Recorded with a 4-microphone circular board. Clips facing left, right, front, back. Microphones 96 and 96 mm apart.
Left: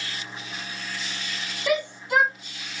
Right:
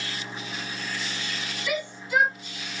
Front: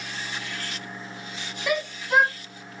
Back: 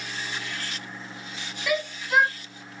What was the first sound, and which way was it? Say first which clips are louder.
A shout: left 6 dB, front 1 dB; 65° left.